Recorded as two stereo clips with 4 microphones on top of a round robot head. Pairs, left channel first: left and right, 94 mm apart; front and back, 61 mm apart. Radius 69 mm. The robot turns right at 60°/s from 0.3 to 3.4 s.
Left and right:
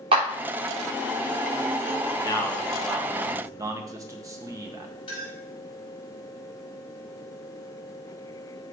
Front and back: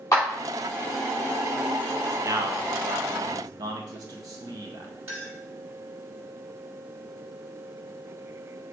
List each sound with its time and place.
0.1 s a clap: 50° right, 3 m
2.2 s a man speaking: 145° left, 1.2 m; by 4.9 s 145° right, 1.2 m
5.1 s a clink: 130° left, 4 m